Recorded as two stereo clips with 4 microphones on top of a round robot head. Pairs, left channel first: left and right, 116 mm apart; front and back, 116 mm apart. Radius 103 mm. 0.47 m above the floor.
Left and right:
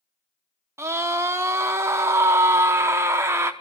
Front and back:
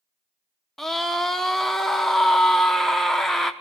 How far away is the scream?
About 0.8 m.